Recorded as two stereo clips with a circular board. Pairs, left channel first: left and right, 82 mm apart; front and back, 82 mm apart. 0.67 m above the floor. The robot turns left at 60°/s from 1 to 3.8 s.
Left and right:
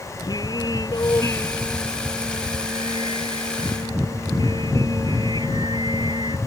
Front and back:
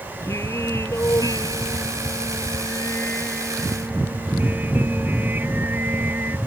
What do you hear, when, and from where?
0.2 s singing: 55° left; by 6.4 s 115° right